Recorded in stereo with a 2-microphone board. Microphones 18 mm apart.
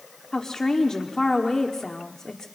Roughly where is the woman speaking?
Left.